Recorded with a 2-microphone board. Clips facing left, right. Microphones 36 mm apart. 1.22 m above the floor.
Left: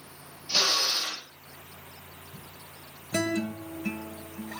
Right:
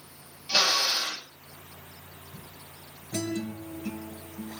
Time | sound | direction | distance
0.5 | a drill | 50° right (ahead or behind) | 9.5 m
3.1 | a guitar | 55° left (ahead or behind) | 2 m